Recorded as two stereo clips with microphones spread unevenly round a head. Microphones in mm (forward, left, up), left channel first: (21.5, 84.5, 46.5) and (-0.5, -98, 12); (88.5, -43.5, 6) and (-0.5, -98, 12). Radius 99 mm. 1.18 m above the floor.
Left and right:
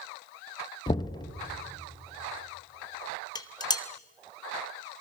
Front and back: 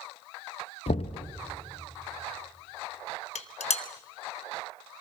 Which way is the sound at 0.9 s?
25° left.